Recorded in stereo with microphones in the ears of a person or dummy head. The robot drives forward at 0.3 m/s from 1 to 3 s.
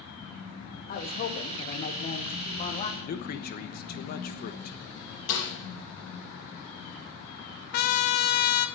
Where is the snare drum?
70° left (ahead or behind), 5.5 m.